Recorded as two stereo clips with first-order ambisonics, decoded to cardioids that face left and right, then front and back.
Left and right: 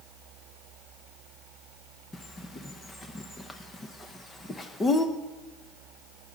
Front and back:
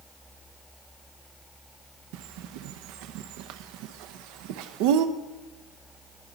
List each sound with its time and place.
2.1 s a bird: 165° left, 0.7 m